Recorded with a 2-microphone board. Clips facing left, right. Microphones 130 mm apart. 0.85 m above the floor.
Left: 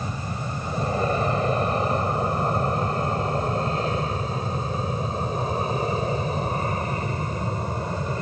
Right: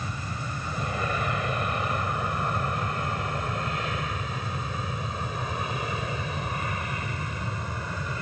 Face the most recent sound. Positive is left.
turn(degrees=35)  # may be behind; listen again after turning